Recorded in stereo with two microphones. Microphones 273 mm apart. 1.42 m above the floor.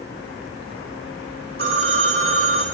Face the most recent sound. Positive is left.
turn(degrees=-50)  # may be behind; listen again after turning